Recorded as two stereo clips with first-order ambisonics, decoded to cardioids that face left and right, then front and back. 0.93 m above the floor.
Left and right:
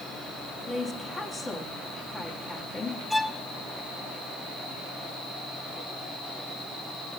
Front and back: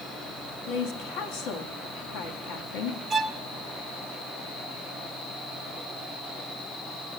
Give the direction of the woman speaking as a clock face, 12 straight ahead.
12 o'clock.